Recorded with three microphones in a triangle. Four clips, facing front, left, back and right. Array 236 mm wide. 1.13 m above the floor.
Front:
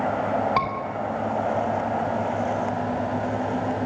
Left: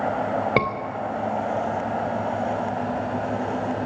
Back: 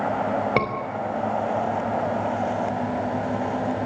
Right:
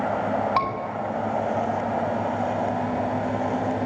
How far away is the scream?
About 4.5 m.